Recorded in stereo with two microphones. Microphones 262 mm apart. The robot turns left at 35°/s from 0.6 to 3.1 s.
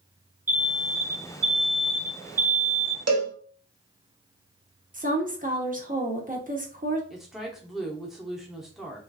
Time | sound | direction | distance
0.5 | an alarm | 55° right | 1.5 m
3.1 | a cowbell | 70° right (ahead or behind) | 0.7 m
4.9 | a woman speaking | 30° right (ahead or behind) | 0.8 m
7.1 | a woman speaking | centre (ahead or behind) | 0.7 m